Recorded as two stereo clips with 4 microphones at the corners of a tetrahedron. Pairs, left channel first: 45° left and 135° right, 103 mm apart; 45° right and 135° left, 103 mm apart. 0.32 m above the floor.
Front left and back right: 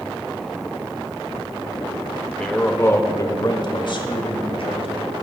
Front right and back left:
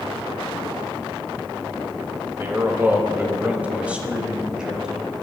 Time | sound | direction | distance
2.4 | a man speaking | 115° left | 0.9 m